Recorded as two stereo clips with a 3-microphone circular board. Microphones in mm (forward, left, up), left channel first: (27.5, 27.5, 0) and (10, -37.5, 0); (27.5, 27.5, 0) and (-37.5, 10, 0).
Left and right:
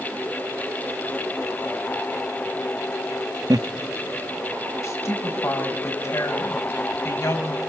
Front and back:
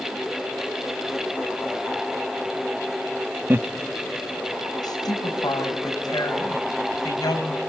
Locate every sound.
3.5 s laughter: 110° right, 0.9 m
4.8 s a woman speaking: 30° left, 6 m